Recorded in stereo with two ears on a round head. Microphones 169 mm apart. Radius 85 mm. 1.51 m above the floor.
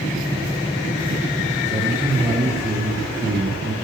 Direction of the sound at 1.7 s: 25° right (ahead or behind).